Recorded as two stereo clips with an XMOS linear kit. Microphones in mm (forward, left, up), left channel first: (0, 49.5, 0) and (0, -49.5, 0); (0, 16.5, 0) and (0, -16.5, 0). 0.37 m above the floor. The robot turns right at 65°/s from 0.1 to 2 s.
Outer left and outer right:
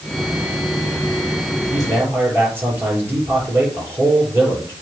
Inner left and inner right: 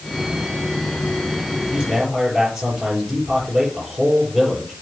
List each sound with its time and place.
1.7 s a man speaking: 45° right (ahead or behind), 6.5 m; by 4.7 s 25° right (ahead or behind), 6.5 m